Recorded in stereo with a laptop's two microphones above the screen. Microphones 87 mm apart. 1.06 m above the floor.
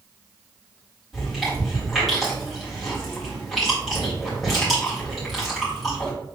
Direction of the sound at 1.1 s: Centre (ahead or behind).